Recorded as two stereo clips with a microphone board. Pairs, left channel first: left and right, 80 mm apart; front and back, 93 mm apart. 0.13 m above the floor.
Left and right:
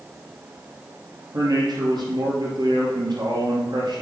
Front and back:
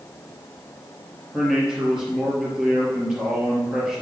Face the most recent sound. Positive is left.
turn(degrees=-95)